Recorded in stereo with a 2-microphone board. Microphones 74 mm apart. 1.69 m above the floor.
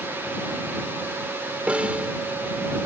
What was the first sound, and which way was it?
A snare drum, 15° right (ahead or behind).